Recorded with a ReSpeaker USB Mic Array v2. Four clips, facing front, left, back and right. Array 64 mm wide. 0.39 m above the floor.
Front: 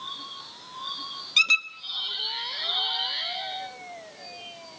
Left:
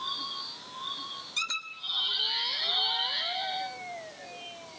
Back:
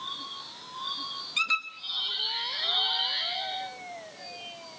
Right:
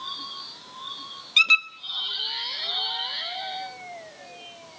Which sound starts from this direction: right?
A squeak, at 1.4 s.